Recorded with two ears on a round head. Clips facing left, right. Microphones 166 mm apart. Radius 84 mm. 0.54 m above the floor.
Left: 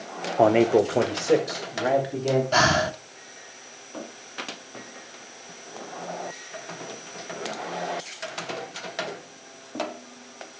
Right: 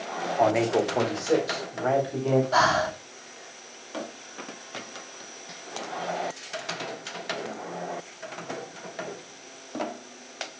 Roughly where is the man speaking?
Left.